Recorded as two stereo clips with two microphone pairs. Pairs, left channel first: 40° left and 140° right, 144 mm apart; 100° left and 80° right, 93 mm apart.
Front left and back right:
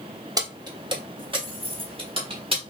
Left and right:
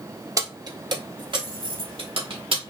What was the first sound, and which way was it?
Keys jangling, 95° right.